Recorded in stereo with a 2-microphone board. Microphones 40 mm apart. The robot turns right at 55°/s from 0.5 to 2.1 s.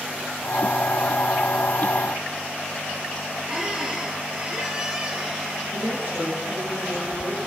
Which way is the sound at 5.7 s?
70° right (ahead or behind).